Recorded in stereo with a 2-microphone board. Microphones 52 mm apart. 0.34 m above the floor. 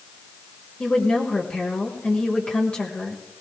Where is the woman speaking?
20° left (ahead or behind), 1.5 m.